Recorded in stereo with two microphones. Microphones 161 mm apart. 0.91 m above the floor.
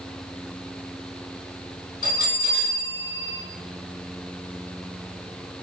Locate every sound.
2.0 s a bell: 55° left (ahead or behind), 1.4 m